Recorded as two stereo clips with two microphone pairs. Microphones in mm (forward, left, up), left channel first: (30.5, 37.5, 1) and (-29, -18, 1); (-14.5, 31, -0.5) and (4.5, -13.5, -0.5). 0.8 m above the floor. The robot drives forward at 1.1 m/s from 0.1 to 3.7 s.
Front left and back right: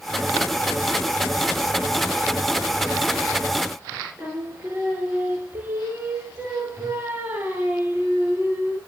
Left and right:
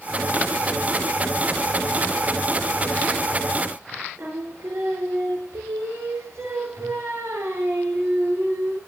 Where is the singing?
80° right, 2 m.